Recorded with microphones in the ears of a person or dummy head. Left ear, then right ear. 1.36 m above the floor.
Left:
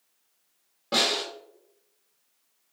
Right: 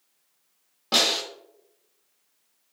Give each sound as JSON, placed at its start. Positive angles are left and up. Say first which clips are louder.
{"t": 0.9, "sound": "a snare drum", "louder": "right 2 dB", "side_deg": -30, "distance_m": 1.7}